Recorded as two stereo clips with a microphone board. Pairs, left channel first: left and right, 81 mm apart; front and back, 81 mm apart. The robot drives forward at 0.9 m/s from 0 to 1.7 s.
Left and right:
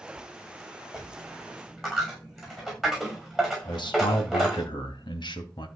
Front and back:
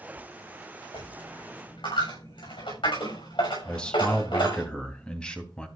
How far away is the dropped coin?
About 6.5 m.